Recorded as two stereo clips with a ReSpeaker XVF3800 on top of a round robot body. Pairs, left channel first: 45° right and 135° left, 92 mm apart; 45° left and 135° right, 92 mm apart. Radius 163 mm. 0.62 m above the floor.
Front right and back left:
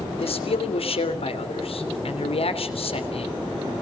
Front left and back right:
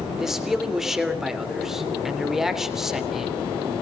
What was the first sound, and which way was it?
A man speaking, 50° right.